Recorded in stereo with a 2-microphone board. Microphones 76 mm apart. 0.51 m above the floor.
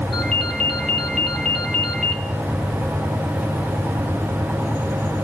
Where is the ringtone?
5° left (ahead or behind), 2.5 m.